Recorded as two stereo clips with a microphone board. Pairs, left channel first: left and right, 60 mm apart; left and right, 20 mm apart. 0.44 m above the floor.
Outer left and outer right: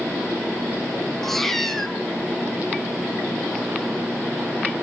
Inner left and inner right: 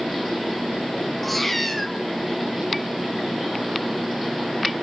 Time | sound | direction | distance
1.2 | a cat meowing | 5° left (ahead or behind) | 1.5 m